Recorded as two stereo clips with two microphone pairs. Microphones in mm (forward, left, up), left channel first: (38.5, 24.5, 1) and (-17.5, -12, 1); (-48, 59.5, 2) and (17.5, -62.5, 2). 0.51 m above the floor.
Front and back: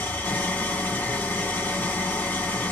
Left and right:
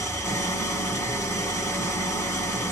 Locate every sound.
0.0 s an engine running: 70° left, 1.1 m